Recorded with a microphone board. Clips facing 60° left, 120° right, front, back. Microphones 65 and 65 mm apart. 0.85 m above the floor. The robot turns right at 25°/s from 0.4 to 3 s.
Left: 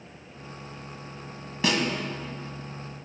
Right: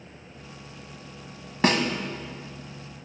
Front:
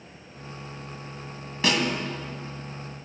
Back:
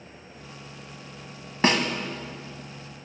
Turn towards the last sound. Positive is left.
turn(degrees=-105)